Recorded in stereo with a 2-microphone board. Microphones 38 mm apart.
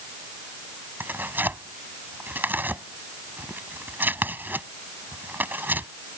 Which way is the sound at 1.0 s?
60° right (ahead or behind).